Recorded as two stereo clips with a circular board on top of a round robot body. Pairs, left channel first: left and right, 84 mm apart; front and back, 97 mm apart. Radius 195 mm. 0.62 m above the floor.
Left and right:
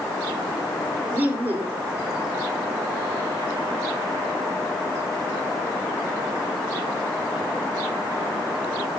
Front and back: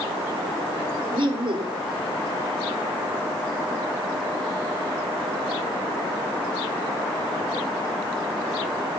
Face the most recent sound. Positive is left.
turn(degrees=-160)